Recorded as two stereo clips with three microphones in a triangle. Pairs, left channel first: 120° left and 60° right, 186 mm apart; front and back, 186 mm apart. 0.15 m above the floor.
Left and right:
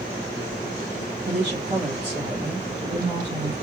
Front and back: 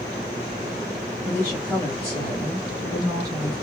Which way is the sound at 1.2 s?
75° right.